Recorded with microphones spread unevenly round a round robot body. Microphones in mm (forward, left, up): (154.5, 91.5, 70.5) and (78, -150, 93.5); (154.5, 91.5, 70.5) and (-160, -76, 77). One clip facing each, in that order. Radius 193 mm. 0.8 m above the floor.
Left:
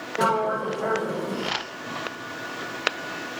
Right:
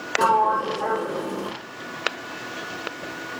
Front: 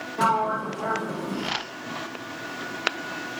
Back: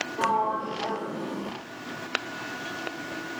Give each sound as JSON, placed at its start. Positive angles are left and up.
{"t": 0.2, "sound": "a sliding door", "azimuth_deg": -25, "distance_m": 0.6}